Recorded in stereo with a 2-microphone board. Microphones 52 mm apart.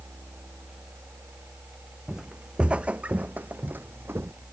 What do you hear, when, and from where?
2.1 s footsteps: 15° right (ahead or behind); by 4.3 s 50° right (ahead or behind)